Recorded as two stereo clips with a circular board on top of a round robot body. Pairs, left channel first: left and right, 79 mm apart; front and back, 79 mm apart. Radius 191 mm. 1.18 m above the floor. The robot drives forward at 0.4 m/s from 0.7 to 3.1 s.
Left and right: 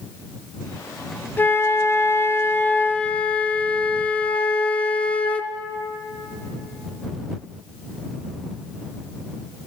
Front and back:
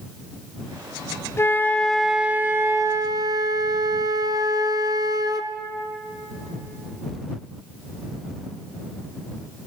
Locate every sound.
1.4 s a flute: 40° left, 0.6 m; by 5.5 s 155° left, 0.7 m